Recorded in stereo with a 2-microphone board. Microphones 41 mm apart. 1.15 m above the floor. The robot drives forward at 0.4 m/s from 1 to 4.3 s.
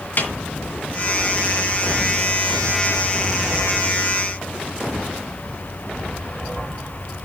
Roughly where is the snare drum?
Left.